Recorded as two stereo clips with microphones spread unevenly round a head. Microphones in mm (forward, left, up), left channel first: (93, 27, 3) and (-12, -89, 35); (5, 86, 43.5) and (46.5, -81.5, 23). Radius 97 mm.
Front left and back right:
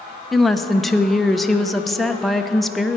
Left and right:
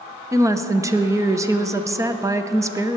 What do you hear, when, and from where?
0.3 s a woman speaking: 25° right, 0.9 m